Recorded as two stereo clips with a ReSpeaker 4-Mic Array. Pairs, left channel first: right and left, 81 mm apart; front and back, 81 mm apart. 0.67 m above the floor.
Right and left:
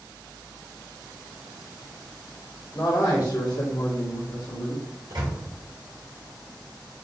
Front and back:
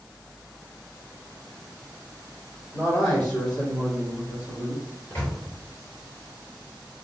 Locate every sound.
2.7 s a man speaking: 50° right, 2 m; by 4.8 s 125° right, 1.6 m
5.1 s a microwave: 65° left, 2.5 m